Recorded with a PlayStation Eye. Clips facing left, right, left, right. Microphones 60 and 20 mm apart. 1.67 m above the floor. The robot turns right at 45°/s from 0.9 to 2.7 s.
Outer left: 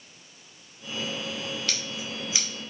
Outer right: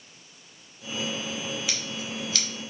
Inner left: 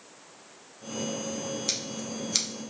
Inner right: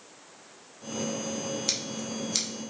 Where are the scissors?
10° right (ahead or behind), 1.8 m; by 2.5 s 20° left (ahead or behind), 1.8 m.